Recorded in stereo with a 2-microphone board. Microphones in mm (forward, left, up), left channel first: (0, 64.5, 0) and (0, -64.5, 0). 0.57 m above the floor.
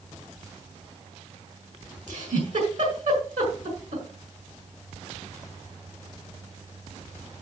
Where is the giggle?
75° right (ahead or behind), 6 m.